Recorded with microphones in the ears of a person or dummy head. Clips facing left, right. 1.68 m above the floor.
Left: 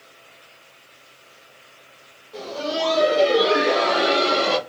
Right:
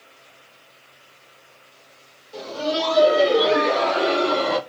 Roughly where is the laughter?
Right.